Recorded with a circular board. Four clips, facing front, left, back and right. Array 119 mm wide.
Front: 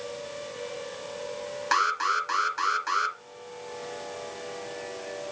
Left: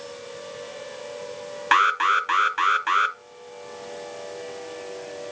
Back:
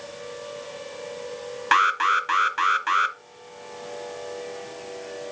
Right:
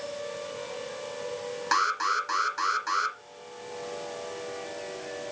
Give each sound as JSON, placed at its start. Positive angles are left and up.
{"t": 1.7, "sound": "an alarm", "azimuth_deg": 130, "distance_m": 0.9}